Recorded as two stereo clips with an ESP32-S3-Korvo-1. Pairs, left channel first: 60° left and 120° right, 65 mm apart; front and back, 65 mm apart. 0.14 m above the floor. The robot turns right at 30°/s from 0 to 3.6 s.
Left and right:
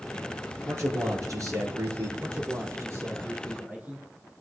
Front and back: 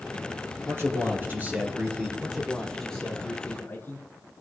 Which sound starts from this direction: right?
A man speaking, at 2.2 s.